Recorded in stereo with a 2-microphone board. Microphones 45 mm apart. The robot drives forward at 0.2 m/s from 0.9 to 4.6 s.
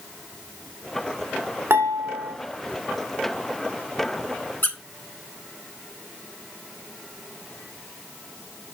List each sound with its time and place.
1.7 s dishes clattering: 60° right (ahead or behind), 2.5 m
4.6 s a squeak: 55° left (ahead or behind), 1.2 m